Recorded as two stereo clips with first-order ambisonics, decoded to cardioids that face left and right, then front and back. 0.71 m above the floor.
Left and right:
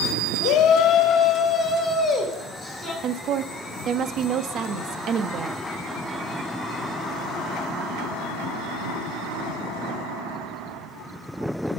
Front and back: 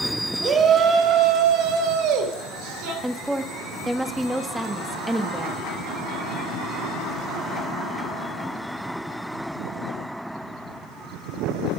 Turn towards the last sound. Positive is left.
turn(degrees=-95)